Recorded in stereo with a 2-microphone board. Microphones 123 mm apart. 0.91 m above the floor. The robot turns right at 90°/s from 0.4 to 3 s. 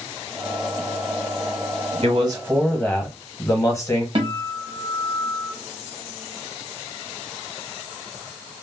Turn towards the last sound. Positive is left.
turn(degrees=-45)  # may be behind; listen again after turning